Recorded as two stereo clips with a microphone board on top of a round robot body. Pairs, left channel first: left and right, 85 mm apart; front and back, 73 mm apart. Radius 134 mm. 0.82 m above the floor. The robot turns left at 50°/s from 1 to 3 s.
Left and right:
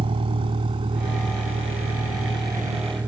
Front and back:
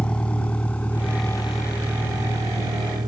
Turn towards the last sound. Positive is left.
turn(degrees=-160)